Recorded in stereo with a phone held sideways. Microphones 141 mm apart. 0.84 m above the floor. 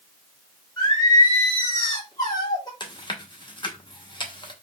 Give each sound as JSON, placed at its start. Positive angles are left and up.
{"t": 0.8, "sound": "singing", "side_deg": 30, "distance_m": 1.3}
{"t": 2.8, "sound": "chewing", "side_deg": 35, "distance_m": 0.8}